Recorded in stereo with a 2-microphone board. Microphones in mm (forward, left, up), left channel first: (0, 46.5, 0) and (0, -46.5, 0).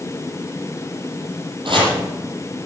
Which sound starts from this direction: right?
Chopping, at 1.6 s.